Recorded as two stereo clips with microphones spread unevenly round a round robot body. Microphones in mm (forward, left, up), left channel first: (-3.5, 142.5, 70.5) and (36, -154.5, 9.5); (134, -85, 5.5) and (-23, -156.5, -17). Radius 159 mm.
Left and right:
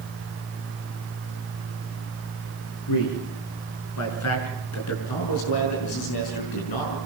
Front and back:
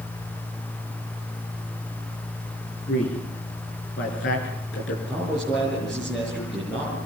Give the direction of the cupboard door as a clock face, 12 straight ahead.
I don't hear a cupboard door.